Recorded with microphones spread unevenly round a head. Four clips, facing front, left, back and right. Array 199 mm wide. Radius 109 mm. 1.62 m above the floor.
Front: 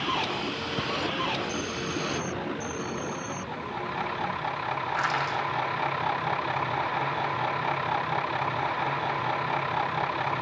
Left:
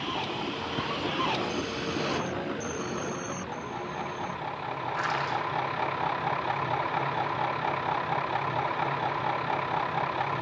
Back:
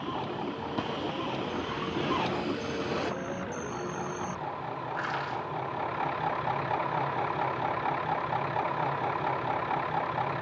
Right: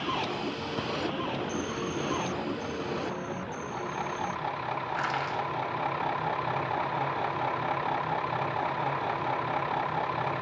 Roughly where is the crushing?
Ahead right.